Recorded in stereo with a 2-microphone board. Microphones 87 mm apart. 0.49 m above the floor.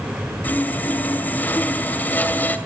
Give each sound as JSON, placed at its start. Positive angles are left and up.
{"t": 0.4, "sound": "sawing", "side_deg": 20, "distance_m": 2.0}